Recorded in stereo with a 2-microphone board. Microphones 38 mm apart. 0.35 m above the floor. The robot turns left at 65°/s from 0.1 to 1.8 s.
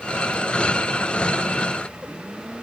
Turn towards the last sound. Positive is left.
No sound to turn to.